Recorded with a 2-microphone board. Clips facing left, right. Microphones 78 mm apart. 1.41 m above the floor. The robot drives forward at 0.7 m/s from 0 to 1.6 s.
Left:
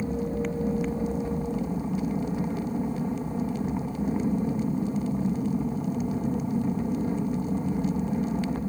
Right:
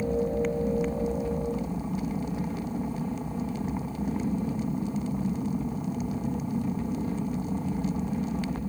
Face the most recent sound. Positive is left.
turn(degrees=25)  # may be behind; listen again after turning